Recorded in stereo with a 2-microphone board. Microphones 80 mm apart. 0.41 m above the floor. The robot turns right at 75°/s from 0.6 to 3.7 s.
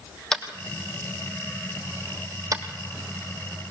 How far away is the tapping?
About 2.5 m.